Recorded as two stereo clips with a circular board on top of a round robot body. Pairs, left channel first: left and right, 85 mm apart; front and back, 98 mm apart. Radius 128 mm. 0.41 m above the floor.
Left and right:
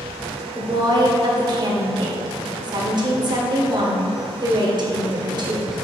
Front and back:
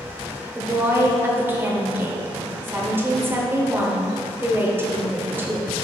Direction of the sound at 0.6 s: 115° right.